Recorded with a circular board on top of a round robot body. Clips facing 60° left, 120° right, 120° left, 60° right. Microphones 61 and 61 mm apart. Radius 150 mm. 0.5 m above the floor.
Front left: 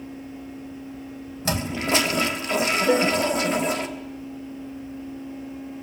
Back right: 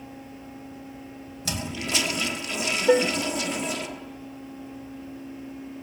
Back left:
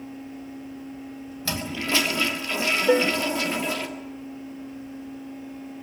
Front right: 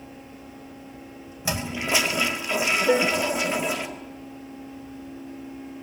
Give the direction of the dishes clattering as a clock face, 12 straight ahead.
5 o'clock.